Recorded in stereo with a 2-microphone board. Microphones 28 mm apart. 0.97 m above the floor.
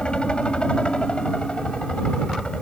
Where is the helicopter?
40° left (ahead or behind).